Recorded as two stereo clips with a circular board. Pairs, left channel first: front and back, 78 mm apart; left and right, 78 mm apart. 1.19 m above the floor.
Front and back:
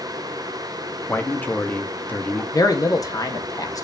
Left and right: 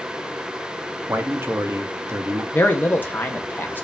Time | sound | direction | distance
1.1 | a man speaking | 50° right | 0.7 m
2.5 | a man speaking | 30° left | 0.7 m